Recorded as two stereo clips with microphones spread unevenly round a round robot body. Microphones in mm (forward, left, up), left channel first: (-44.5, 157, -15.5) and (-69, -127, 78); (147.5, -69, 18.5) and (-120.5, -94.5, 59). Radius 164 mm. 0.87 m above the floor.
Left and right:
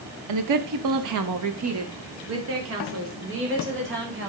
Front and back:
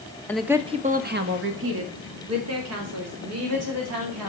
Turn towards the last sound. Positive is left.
turn(degrees=-150)